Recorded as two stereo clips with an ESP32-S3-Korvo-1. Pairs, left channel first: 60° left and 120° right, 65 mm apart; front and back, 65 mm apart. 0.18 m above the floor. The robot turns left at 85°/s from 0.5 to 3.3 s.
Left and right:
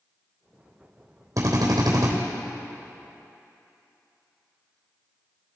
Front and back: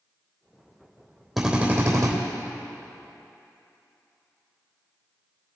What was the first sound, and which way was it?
A drill, 90° right.